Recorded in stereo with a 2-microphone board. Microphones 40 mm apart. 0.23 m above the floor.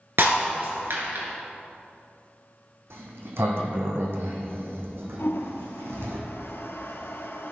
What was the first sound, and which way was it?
Breaking glass, 70° right (ahead or behind).